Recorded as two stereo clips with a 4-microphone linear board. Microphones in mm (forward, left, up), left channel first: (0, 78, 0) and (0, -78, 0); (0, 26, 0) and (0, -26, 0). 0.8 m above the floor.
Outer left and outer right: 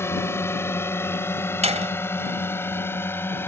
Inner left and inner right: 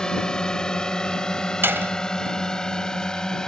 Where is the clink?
I don't hear a clink.